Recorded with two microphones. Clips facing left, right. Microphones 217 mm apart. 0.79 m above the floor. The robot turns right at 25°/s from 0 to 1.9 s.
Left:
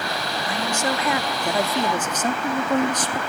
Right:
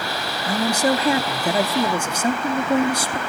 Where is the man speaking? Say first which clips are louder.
Right 7 dB; 45° right, 1.1 m; by 3.2 s 10° right, 1.1 m.